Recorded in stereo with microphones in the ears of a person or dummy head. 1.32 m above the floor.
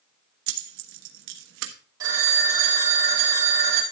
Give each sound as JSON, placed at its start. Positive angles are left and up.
{"t": 0.5, "sound": "keys jangling", "side_deg": -80, "distance_m": 1.3}
{"t": 2.0, "sound": "a phone ringing", "side_deg": -20, "distance_m": 3.0}